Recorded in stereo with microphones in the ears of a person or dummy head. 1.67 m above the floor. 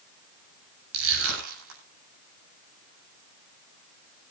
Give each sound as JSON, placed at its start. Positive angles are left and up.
{"t": 0.9, "sound": "crushing", "side_deg": -80, "distance_m": 9.0}